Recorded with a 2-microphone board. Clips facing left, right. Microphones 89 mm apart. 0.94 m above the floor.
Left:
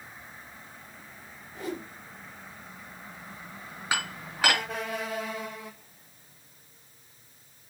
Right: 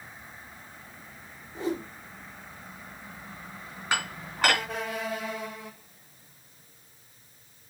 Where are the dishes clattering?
5° left (ahead or behind), 6 m.